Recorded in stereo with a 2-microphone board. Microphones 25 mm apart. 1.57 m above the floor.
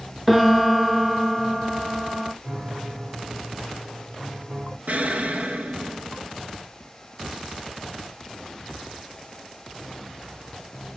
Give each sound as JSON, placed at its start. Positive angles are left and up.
{"t": 0.3, "sound": "a piano", "side_deg": -10, "distance_m": 0.6}
{"t": 2.4, "sound": "a piano", "side_deg": -55, "distance_m": 2.0}
{"t": 4.9, "sound": "an explosion", "side_deg": -65, "distance_m": 0.7}